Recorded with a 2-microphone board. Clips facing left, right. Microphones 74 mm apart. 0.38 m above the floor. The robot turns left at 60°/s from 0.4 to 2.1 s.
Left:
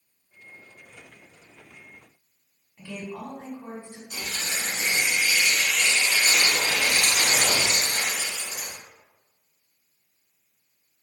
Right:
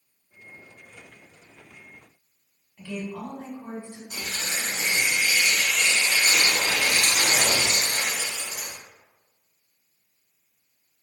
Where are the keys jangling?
I don't hear keys jangling.